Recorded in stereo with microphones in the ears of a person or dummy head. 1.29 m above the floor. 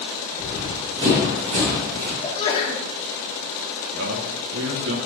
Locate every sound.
0.4 s running footsteps: 15° right (ahead or behind), 2.5 m; by 2.1 s 45° right (ahead or behind), 3.5 m
2.2 s a sneeze: 25° left (ahead or behind), 1.5 m
3.9 s a man speaking: 70° right (ahead or behind), 1.2 m